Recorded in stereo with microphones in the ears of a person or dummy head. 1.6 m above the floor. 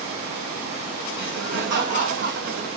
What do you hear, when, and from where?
1.2 s laughter: 60° right (ahead or behind), 2 m